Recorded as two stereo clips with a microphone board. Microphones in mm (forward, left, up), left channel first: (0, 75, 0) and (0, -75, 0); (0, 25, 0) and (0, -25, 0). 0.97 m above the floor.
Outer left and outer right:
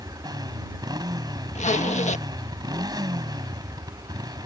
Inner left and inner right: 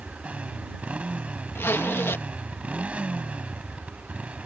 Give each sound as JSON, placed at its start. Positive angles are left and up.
{"t": 0.0, "sound": "a motorcycle", "side_deg": -25}
{"t": 1.6, "sound": "a zipper", "side_deg": 50}